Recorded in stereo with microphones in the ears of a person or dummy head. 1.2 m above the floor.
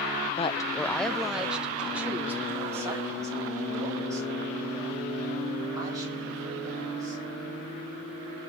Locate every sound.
0.4 s a woman speaking: 30° left (ahead or behind), 0.9 m; by 7.2 s 20° right (ahead or behind), 8.5 m